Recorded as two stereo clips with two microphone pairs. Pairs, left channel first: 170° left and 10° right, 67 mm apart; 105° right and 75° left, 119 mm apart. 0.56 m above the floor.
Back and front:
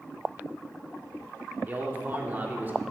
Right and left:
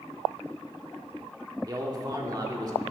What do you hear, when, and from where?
1.7 s a man speaking: 35° left, 1.6 m